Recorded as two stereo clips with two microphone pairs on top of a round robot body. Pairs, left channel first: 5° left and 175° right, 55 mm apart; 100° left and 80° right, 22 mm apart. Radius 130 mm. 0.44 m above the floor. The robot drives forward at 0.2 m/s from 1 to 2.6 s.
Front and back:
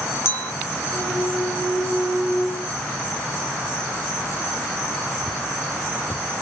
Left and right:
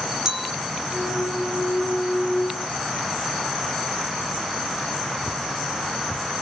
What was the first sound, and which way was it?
A clink, 15° right.